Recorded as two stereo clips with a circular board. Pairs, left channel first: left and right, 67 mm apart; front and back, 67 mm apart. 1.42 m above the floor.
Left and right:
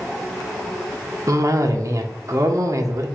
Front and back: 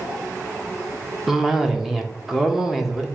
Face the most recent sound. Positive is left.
turn(degrees=-95)